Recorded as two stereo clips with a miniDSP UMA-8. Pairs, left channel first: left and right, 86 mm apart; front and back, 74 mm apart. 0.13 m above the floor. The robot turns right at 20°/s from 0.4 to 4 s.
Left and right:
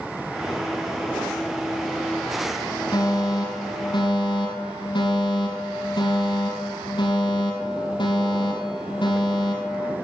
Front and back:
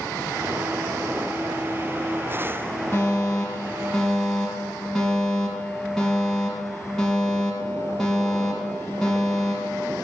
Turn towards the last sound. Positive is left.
turn(degrees=85)